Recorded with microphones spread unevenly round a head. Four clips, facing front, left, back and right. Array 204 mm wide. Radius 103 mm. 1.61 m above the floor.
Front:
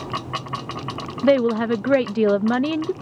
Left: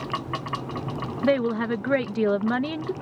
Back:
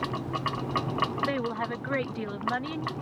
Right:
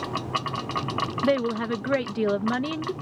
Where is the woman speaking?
5° left.